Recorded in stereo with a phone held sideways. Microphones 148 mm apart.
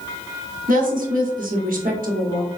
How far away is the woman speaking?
About 0.9 m.